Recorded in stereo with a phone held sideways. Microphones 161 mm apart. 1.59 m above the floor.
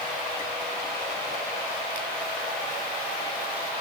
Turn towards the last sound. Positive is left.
No sound to turn to.